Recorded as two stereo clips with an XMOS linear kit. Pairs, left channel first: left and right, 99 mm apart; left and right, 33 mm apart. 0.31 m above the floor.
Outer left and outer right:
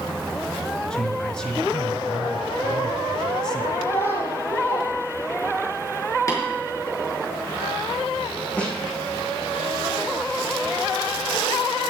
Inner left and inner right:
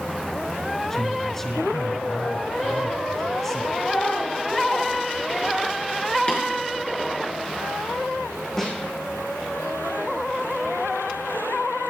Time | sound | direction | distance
0.9 | a man speaking | 15° left (ahead or behind) | 1.5 m
3.8 | a child speaking | 85° left | 4.5 m
6.3 | tapping | 35° left (ahead or behind) | 5.5 m
8.6 | a snare drum | 10° left (ahead or behind) | 6 m